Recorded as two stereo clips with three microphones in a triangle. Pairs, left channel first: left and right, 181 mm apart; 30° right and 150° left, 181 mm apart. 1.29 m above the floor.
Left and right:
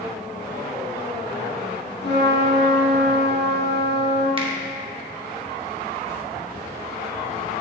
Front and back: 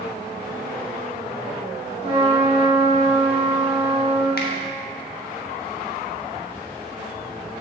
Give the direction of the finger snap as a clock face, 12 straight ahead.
1 o'clock.